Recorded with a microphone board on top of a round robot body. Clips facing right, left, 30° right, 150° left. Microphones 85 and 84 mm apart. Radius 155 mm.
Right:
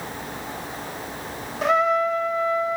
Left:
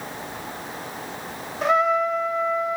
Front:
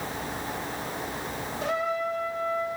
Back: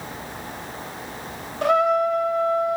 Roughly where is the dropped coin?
I don't hear a dropped coin.